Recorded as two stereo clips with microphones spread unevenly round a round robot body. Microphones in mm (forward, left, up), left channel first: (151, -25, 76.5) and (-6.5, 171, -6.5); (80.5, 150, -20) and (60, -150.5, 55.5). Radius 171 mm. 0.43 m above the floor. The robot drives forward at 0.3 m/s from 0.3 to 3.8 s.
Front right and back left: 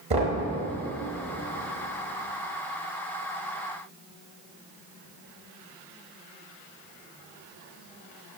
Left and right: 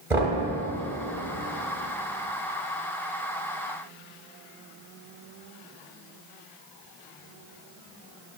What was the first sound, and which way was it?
Knocking, 175° left.